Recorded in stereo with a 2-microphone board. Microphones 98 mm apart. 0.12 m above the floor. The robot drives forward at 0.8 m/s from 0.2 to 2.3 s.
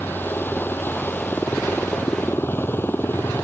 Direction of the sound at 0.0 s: 20° left (ahead or behind).